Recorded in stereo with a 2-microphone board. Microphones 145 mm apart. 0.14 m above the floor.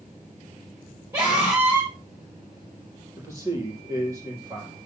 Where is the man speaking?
20° right (ahead or behind), 4.5 m.